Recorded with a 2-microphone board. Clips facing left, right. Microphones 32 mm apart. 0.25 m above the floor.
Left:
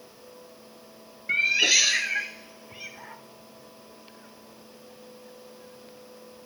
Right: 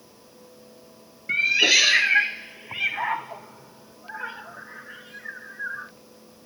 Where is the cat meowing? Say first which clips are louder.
Right 3 dB; centre (ahead or behind); by 5.9 s 85° right.